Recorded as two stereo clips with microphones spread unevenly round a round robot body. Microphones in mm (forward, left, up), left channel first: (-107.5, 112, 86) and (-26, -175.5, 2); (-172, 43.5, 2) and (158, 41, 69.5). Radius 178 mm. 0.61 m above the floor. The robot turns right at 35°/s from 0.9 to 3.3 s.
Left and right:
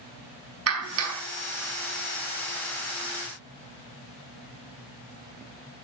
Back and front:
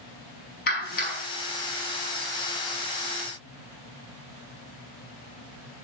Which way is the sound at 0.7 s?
115° right.